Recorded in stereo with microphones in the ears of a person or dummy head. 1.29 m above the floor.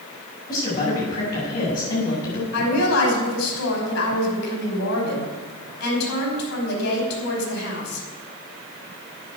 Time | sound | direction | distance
0.5 | a woman speaking | 40° left (ahead or behind) | 8 m
2.5 | a woman speaking | 90° left | 5.5 m